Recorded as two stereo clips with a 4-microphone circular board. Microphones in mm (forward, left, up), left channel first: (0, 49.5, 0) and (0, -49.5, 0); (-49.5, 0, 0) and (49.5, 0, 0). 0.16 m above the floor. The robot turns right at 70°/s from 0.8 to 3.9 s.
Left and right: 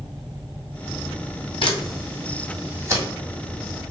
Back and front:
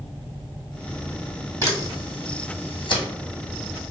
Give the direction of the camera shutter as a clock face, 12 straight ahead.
8 o'clock.